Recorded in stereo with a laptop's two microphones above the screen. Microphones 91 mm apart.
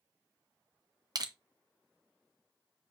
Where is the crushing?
45° right (ahead or behind), 0.6 m.